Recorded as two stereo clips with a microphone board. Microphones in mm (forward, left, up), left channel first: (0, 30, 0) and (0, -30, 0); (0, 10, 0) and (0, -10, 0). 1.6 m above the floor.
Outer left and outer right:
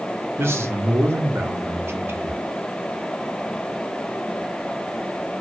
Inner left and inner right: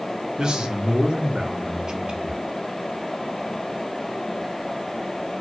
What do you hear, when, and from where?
0.4 s a man speaking: 45° right (ahead or behind), 0.7 m